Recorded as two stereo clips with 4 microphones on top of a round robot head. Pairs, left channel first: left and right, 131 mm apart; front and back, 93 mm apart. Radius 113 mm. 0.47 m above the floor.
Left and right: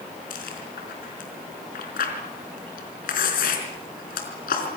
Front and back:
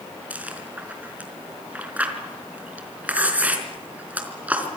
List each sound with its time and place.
0.3 s chewing: 110° left, 4.5 m